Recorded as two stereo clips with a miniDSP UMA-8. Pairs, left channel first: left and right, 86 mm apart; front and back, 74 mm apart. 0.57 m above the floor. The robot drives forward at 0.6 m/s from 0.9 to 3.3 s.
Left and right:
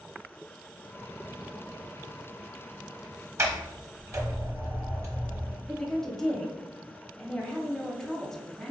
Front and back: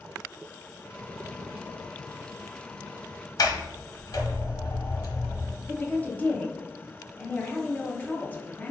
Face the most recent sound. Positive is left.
turn(degrees=15)